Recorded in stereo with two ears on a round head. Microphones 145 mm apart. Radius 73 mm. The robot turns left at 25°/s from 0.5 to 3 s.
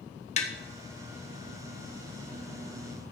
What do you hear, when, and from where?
0.4 s tapping: 40° left (ahead or behind), 1.3 m